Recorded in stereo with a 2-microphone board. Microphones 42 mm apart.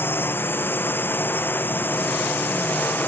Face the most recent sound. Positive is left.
turn(degrees=50)  # may be behind; listen again after turning